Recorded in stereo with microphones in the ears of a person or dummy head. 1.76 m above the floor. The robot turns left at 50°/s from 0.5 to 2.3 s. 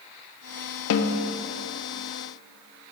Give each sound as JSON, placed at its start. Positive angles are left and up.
{"t": 0.9, "sound": "a snare drum", "side_deg": 75, "distance_m": 0.5}